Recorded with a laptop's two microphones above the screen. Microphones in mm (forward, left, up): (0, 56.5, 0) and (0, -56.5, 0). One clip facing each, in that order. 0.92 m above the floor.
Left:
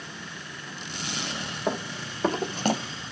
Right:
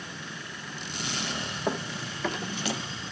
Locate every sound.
1.7 s running footsteps: 5° left (ahead or behind), 1.2 m; by 2.8 s 45° left (ahead or behind), 1.5 m